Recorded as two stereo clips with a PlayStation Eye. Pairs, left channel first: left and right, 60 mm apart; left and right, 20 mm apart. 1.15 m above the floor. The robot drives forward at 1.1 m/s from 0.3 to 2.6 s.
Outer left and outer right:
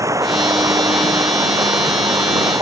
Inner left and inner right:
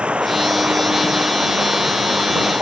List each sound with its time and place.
0.0 s running water: 65° right (ahead or behind); by 2.6 s 70° right (ahead or behind)